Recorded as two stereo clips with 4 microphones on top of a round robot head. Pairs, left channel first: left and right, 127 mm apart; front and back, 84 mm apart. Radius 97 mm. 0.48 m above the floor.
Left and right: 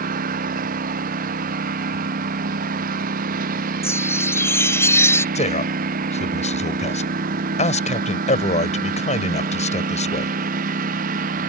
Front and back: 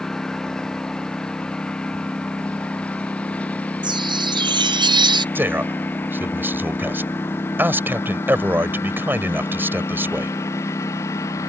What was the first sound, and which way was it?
A lawn mower, 85° right.